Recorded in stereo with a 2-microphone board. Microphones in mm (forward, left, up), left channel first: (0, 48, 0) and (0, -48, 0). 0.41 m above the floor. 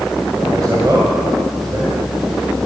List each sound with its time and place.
0.5 s a man speaking: 40° right (ahead or behind), 2 m